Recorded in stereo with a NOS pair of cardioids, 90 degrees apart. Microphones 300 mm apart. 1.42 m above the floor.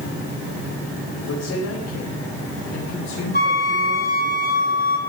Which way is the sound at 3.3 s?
35° left.